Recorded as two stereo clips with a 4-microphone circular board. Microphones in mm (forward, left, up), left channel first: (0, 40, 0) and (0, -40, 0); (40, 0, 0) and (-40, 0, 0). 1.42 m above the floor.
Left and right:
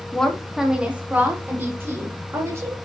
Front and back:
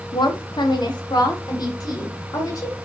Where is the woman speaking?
10° left, 0.8 m; by 2.8 s 40° right, 1.9 m.